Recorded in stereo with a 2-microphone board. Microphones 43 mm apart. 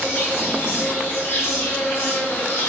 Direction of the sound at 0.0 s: 65° left (ahead or behind).